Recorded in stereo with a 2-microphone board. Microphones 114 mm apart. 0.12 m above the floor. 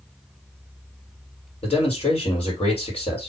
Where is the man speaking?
60° left (ahead or behind), 3 m.